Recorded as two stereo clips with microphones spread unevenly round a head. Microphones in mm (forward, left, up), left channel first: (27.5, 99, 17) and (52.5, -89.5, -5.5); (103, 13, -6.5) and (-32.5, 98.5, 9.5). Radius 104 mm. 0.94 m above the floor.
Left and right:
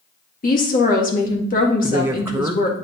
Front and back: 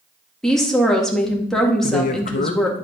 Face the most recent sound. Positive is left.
turn(degrees=-5)